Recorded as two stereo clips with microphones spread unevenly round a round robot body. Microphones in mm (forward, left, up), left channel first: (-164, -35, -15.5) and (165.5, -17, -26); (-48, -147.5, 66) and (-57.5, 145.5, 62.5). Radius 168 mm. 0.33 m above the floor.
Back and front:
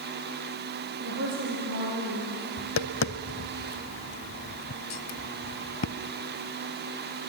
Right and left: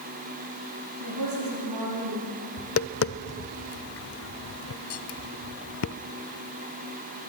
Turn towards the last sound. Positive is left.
turn(degrees=-125)